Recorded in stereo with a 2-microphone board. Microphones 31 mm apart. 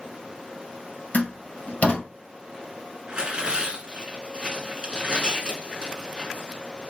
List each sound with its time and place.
1.1 s a door slam: 50° left (ahead or behind), 2.5 m
3.1 s tearing paper: 30° right (ahead or behind), 1.5 m